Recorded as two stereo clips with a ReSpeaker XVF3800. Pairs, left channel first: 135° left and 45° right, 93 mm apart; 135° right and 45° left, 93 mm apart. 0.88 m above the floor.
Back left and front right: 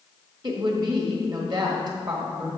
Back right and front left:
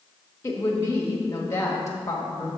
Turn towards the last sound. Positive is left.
turn(degrees=-80)